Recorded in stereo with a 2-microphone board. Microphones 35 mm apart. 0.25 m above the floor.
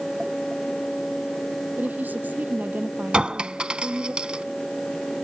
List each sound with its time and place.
1.8 s a woman speaking: 55° right (ahead or behind); by 4.1 s 60° right (ahead or behind)
3.1 s a clink: 30° right (ahead or behind)